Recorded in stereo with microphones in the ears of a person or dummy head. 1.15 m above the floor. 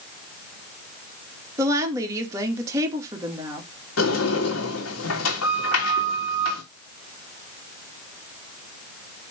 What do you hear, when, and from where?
1.6 s a woman speaking: 15° right (ahead or behind), 2 m
4.0 s a sliding door: 80° left, 3 m